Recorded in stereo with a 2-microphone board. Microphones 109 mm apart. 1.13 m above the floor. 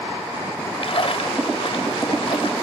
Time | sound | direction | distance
0.8 | a splash | 60° left (ahead or behind) | 1.7 m